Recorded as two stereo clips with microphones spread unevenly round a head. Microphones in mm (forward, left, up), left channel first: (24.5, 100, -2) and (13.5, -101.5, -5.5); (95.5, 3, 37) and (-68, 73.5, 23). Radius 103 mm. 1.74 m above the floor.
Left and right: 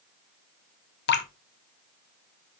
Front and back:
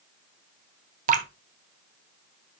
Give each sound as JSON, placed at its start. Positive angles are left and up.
{"t": 1.1, "sound": "dripping", "azimuth_deg": 115, "distance_m": 1.0}